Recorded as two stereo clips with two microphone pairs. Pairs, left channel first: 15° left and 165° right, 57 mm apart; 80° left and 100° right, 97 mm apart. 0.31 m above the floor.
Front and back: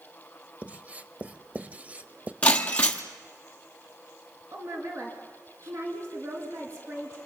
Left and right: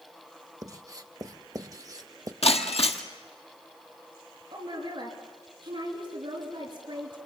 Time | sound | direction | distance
0.6 | writing | 115° right | 0.8 m
2.4 | breaking glass | 80° left | 1.2 m
4.5 | a woman speaking | 130° right | 5 m